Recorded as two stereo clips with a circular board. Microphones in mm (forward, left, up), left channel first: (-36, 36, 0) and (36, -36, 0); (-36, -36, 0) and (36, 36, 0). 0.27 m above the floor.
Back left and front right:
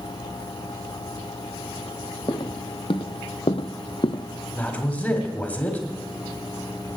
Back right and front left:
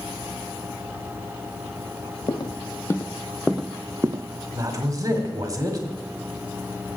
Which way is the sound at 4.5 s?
70° left.